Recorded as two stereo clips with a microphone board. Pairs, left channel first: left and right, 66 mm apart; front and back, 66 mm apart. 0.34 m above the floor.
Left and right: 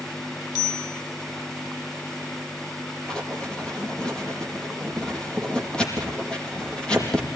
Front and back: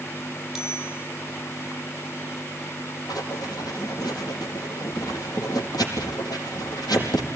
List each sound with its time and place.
0.6 s a bicycle bell: 95° left, 8.5 m
3.1 s writing: 10° left, 5 m